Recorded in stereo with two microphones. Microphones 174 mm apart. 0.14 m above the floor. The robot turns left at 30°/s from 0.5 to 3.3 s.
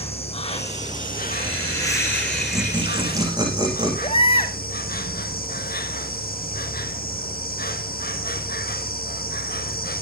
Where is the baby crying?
35° left (ahead or behind), 1.6 m.